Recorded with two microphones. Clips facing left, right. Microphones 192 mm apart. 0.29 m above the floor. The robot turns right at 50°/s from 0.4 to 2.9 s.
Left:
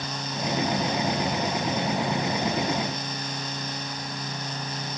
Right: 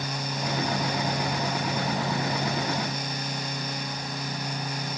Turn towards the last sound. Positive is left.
No sound to turn to.